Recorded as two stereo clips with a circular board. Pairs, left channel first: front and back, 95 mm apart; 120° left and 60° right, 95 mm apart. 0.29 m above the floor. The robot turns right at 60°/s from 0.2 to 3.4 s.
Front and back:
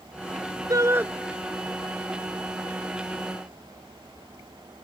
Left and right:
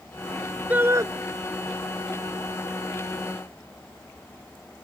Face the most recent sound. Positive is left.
turn(degrees=30)